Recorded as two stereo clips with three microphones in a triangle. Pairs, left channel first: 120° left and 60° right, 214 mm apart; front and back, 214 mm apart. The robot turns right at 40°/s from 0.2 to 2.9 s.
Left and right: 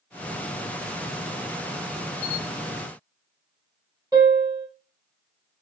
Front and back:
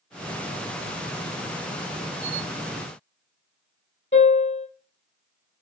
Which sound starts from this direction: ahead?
A piano, at 4.1 s.